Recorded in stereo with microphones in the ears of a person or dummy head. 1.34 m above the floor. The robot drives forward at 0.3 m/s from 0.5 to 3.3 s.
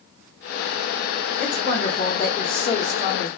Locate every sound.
1.4 s a woman speaking: 65° left (ahead or behind), 1.1 m; by 3.3 s 45° left (ahead or behind), 1.4 m